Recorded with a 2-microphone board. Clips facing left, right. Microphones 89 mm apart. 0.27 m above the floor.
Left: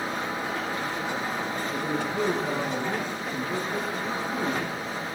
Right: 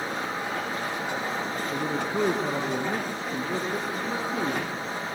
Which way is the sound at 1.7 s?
45° right (ahead or behind).